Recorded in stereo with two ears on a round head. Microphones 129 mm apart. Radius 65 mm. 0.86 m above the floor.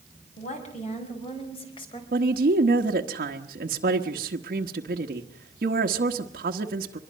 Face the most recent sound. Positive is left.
turn(degrees=-65)  # may be behind; listen again after turning